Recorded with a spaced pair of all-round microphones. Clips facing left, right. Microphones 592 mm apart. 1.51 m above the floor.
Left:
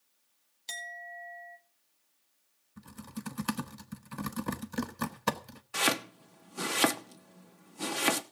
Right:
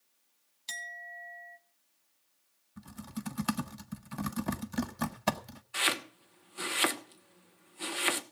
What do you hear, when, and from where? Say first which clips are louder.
0.7 s a clink: left 4 dB; 35° right (ahead or behind), 1.4 m
2.8 s typing on a keyboard: right 1 dB; 10° right (ahead or behind), 0.9 m
5.7 s chopping: left 6 dB; 65° left (ahead or behind), 1.0 m